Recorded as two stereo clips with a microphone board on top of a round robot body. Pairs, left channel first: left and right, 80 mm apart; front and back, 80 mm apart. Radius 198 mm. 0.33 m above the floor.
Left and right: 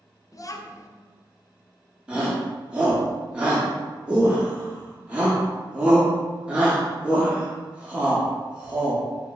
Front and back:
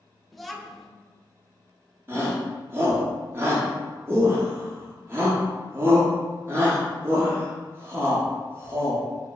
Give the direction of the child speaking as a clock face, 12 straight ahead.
9 o'clock.